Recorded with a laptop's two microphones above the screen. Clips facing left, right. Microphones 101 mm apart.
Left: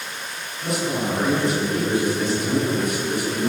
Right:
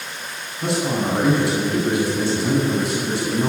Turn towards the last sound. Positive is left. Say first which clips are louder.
# right 3 dB
turn(degrees=-75)  # may be behind; listen again after turning